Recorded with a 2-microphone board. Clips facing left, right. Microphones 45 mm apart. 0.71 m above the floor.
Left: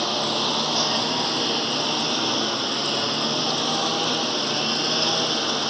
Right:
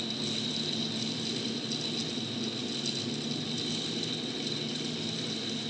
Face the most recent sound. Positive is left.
turn(degrees=85)